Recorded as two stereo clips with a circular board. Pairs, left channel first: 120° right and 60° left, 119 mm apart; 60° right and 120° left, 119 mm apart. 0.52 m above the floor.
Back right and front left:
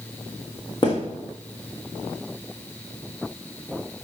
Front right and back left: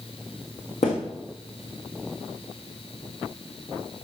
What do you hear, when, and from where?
0.8 s a thud: 70° right, 3.5 m